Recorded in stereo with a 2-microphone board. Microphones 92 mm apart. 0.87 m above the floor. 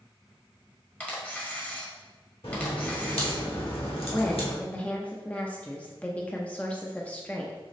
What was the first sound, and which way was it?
A camera shutter, 15° left (ahead or behind).